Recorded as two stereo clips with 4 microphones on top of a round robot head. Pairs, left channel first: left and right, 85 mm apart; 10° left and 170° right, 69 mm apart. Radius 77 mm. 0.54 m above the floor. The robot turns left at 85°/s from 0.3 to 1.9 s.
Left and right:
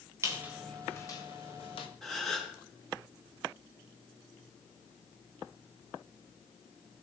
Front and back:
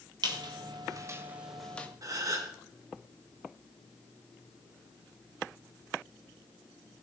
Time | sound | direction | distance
0.2 | a squeak | 150° right | 1.3 m
2.0 | a gasp | 175° left | 2.5 m